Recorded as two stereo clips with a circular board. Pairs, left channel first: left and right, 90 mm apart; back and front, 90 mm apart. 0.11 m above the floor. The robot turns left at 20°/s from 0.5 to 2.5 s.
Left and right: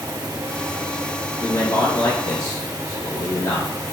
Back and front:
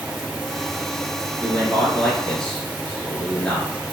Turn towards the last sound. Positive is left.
turn(degrees=100)